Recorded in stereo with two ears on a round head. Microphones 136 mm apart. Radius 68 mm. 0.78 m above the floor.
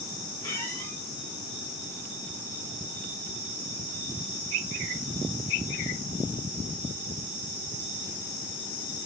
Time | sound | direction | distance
0.4 | a squeak | 25° left (ahead or behind) | 4 m